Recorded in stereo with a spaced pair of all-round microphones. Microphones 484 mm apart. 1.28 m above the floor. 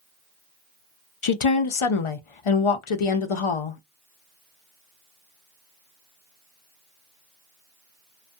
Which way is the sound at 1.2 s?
85° left.